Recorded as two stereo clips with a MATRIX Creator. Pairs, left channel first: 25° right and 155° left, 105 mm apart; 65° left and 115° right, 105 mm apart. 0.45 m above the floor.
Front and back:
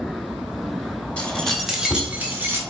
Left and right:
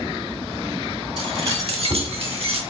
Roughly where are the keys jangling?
Right.